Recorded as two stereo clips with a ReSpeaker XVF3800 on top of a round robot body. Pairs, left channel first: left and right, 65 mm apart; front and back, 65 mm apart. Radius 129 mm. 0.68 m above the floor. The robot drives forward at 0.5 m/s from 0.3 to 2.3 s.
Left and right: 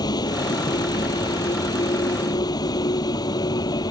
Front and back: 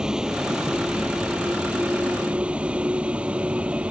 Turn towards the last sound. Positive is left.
turn(degrees=105)